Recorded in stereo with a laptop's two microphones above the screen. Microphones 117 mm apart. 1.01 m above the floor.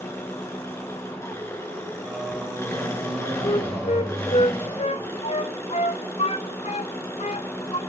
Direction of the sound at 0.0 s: 25° left (ahead or behind).